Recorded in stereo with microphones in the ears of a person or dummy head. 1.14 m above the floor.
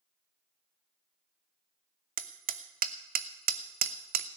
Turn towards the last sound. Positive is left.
turn(degrees=-50)  # may be behind; listen again after turning